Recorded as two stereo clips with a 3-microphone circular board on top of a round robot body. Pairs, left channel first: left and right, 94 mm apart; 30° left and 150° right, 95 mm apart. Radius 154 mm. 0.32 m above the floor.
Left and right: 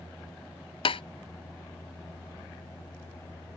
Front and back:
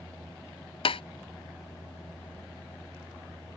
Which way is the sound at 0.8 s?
60° left.